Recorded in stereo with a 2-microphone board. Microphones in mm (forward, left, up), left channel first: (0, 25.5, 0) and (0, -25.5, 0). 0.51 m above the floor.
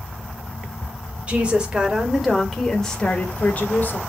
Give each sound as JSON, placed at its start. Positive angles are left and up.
{"t": 1.3, "sound": "a woman speaking", "side_deg": -25, "distance_m": 2.5}